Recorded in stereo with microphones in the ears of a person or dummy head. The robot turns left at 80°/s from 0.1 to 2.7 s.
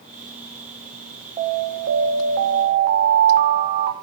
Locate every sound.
1.4 s an alarm: 30° right, 1.2 m; by 3.9 s 135° right, 1.2 m